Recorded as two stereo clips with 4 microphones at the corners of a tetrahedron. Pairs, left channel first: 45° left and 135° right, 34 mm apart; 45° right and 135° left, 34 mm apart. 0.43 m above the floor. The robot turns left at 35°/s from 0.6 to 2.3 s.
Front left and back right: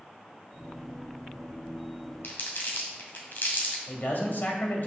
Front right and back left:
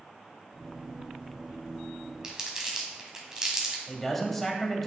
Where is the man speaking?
40° left, 1.8 m.